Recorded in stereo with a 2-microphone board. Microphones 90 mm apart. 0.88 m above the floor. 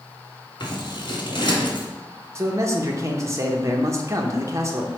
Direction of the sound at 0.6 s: 60° left (ahead or behind).